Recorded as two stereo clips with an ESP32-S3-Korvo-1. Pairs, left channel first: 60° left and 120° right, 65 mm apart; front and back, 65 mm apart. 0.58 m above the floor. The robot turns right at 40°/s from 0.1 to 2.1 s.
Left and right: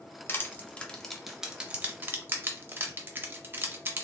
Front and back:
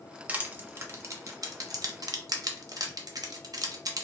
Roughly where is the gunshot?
I don't hear a gunshot.